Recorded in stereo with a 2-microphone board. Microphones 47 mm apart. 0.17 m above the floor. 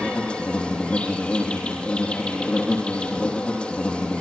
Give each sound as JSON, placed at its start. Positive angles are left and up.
{"t": 0.0, "sound": "an insect", "side_deg": 25, "distance_m": 5.5}